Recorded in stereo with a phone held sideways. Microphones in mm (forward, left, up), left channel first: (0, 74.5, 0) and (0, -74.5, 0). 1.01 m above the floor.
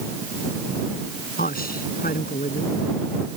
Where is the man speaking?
90° left.